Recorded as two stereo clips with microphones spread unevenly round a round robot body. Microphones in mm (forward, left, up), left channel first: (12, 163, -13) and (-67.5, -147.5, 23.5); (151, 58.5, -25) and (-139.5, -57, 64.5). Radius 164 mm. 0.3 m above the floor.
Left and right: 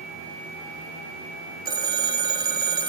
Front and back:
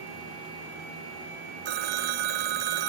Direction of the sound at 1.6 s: Straight behind.